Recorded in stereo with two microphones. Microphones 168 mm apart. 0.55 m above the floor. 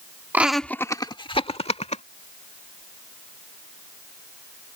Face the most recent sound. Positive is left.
turn(degrees=40)  # may be behind; listen again after turning